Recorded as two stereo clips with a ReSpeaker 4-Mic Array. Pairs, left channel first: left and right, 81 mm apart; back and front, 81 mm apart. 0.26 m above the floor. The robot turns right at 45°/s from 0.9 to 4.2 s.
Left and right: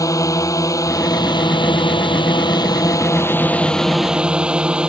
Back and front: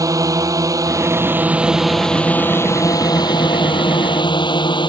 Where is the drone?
45° left; by 4.9 s 170° right.